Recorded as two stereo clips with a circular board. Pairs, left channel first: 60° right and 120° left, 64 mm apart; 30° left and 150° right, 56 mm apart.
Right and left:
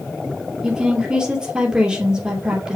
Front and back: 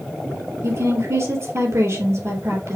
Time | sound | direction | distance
0.6 | a woman speaking | 165° right | 3 m